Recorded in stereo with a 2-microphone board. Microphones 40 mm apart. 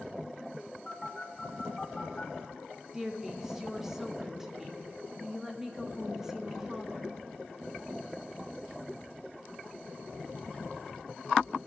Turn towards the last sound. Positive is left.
turn(degrees=-10)  # may be behind; listen again after turning